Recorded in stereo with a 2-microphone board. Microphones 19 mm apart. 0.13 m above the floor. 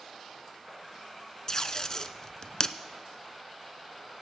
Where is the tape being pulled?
30° left (ahead or behind), 0.5 m.